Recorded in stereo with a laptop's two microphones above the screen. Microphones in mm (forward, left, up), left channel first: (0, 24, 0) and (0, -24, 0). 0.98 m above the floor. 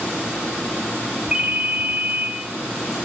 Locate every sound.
1.3 s a ringtone: 25° right (ahead or behind), 0.7 m